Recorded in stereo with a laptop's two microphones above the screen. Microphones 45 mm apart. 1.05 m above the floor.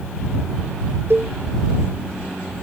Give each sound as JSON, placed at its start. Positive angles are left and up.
{"t": 1.1, "sound": "a cowbell", "side_deg": -55}